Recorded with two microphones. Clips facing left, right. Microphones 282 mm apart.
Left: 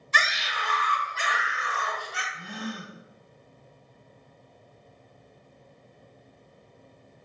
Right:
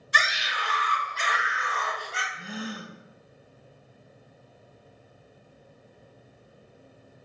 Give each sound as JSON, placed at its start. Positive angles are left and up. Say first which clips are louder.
{"t": 0.1, "sound": "a scream", "louder": "even", "side_deg": -15, "distance_m": 1.8}
{"t": 2.3, "sound": "a gasp", "louder": "even", "side_deg": -5, "distance_m": 0.5}